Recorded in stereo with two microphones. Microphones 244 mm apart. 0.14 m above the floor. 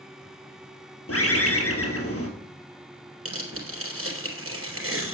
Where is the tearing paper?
60° right (ahead or behind), 3.5 m.